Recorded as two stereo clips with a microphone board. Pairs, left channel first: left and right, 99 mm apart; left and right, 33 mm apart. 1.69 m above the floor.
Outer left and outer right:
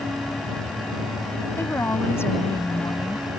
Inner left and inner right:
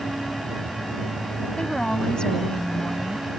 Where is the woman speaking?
25° left (ahead or behind).